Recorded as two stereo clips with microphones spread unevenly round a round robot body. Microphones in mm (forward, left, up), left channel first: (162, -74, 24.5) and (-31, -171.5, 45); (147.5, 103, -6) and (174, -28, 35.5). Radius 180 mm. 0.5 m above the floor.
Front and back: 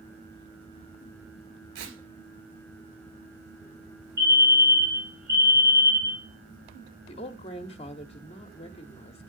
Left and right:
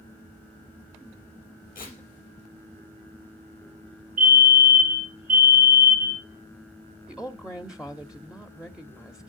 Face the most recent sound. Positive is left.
turn(degrees=35)